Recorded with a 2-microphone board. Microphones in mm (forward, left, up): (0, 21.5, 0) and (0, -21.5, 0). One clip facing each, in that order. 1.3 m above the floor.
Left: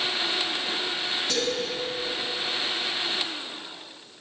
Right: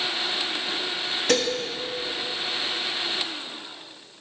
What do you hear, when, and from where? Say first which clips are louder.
1.3 s dishes clattering: right 6 dB; 75° right (ahead or behind), 1.4 m